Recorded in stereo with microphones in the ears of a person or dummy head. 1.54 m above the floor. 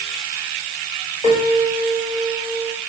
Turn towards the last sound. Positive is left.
turn(degrees=20)  # may be behind; listen again after turning